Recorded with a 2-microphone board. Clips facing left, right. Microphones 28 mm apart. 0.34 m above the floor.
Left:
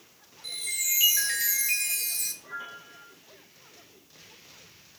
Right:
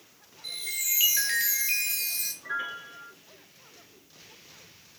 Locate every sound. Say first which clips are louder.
0.4 s a chime: left 1 dB; 25° right (ahead or behind), 1.1 m
2.4 s a piano: right 6 dB; 75° right (ahead or behind), 1.1 m